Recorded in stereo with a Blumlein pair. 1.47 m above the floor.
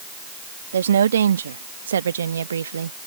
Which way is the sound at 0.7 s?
65° right.